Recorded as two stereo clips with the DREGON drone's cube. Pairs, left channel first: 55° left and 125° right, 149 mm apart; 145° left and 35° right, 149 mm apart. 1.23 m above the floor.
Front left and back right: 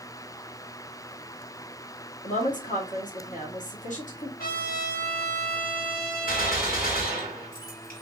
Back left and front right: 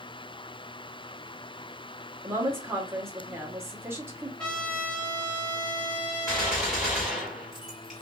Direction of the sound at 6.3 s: 55° left.